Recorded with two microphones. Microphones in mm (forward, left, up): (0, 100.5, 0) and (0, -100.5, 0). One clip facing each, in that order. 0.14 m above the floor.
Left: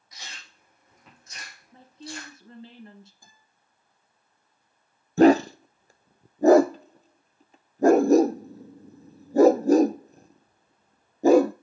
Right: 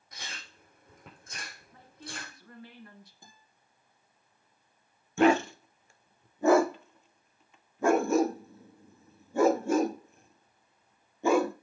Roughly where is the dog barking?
Left.